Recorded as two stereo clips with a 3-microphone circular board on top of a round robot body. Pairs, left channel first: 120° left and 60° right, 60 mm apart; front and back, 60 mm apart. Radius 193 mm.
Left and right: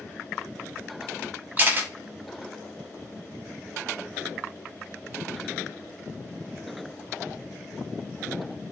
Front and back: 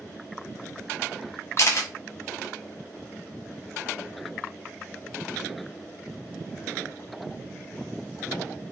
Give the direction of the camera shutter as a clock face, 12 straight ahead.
12 o'clock.